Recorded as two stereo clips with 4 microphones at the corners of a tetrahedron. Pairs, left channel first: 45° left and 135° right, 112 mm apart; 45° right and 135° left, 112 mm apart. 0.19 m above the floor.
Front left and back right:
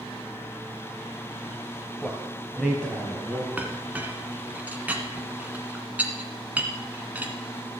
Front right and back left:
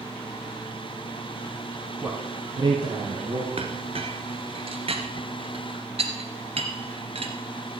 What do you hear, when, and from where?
2.0 s a man speaking: 105° left, 1.4 m; by 3.5 s 130° left, 2 m
3.6 s a clink: 150° left, 1.3 m